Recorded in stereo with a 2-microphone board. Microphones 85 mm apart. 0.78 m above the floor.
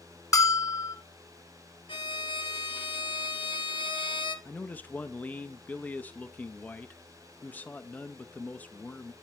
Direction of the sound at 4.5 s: 20° left (ahead or behind).